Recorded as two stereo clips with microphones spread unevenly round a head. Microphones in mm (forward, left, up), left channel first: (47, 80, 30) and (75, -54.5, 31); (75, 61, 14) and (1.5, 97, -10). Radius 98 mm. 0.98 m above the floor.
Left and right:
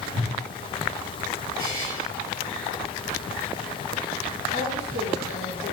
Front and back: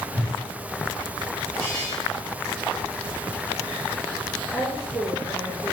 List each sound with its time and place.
0.1 s a whoosh: 125° right, 1.6 m
1.6 s a buzzer: 80° right, 1.3 m
4.5 s a woman speaking: 75° right, 2 m